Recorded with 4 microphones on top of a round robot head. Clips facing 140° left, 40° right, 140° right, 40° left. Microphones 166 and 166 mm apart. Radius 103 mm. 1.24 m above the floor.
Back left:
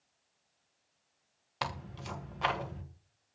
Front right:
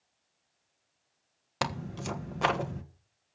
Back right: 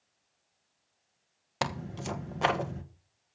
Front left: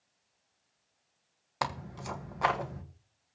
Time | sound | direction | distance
1.6 | tearing paper | 75° right | 1.6 m